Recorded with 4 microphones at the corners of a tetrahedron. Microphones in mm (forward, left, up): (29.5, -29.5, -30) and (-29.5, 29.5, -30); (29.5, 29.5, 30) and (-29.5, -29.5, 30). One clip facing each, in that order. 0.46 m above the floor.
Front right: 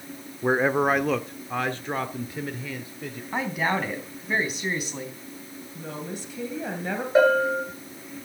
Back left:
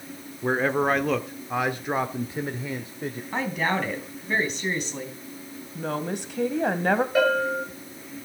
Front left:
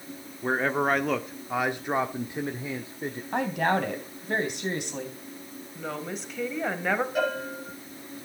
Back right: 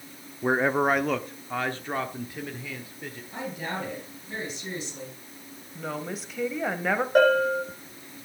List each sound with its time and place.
0.4 s a man speaking: 85° right, 1.0 m; by 3.2 s 90° left, 1.5 m
3.3 s a woman speaking: 40° left, 3.5 m
5.8 s a woman speaking: 140° left, 2 m
7.2 s a bell: 105° right, 9 m